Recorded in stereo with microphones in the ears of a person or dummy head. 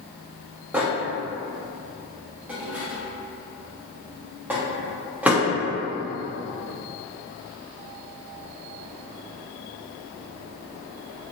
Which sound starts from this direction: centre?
A microwave, at 0.7 s.